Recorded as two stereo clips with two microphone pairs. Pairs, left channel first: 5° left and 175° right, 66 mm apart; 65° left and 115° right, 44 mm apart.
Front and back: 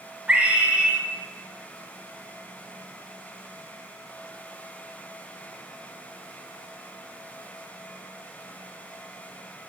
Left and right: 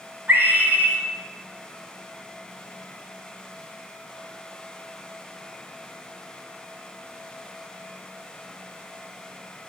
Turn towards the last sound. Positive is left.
turn(degrees=-120)